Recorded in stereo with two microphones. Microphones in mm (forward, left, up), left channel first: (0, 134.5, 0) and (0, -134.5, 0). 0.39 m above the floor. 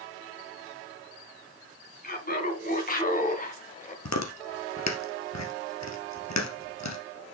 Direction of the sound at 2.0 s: 35° left (ahead or behind).